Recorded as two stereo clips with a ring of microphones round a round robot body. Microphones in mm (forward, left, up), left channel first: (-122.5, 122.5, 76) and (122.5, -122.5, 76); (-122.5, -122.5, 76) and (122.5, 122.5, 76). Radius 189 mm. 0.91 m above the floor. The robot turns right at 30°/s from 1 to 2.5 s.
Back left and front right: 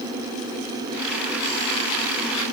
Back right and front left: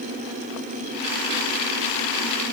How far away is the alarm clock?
No alarm clock in this recording.